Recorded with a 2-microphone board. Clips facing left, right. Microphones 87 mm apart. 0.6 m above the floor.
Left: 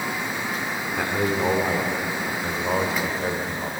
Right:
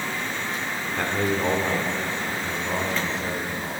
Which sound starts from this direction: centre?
A man speaking, at 1.0 s.